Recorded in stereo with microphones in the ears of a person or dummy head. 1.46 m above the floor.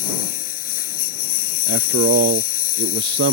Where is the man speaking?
55° right (ahead or behind).